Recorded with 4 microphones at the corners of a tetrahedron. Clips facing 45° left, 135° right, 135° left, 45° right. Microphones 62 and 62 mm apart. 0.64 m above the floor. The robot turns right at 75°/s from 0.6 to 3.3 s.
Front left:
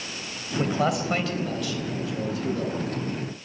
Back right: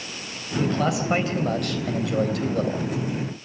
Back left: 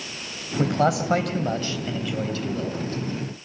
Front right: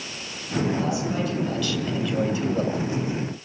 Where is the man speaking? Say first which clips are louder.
Back right 1 dB, back left 4 dB; 110° left, 3.5 m; by 2.9 s 75° right, 3.5 m.